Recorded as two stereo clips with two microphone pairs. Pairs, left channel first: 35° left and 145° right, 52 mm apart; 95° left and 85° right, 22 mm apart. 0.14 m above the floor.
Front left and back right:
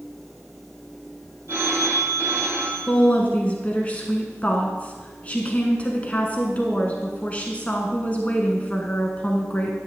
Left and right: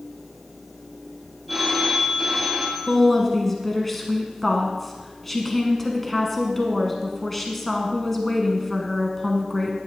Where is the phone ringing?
Straight behind, 2.5 m.